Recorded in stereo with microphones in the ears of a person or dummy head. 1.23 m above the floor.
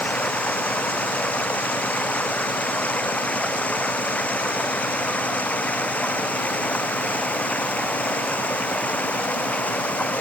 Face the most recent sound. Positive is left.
turn(degrees=0)  # may be behind; listen again after turning